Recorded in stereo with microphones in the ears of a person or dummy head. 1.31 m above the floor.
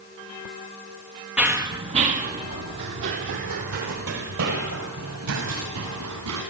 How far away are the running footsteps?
About 1.8 m.